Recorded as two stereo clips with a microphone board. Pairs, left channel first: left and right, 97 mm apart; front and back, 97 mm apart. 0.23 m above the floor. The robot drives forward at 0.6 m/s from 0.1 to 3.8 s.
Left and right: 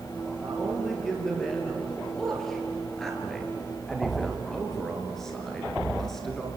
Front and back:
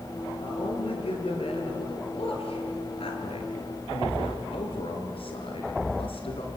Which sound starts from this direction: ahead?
A man speaking, at 0.4 s.